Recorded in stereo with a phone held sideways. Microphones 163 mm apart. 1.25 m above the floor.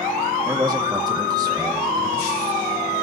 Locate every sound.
0.5 s a man speaking: 25° right (ahead or behind), 1.7 m